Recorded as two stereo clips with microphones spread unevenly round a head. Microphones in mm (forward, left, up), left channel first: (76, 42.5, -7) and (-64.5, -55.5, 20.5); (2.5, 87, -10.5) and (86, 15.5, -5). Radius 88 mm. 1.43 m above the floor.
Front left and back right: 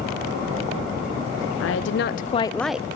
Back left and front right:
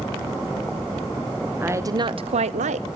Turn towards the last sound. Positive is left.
turn(degrees=-70)